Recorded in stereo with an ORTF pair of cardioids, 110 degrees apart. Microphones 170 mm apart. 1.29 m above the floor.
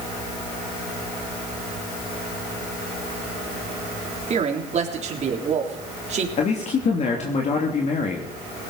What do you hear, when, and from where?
4.3 s a man speaking: 45° right, 3.5 m
6.4 s a man speaking: 40° left, 3 m